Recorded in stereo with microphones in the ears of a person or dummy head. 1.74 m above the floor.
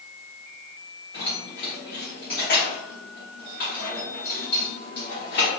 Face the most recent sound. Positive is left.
turn(degrees=40)  # may be behind; listen again after turning